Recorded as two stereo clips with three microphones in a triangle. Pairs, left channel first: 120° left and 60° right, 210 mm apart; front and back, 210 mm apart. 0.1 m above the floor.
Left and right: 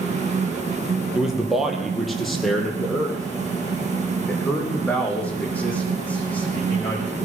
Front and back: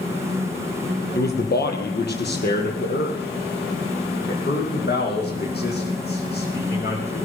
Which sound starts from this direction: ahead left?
A man speaking, at 1.1 s.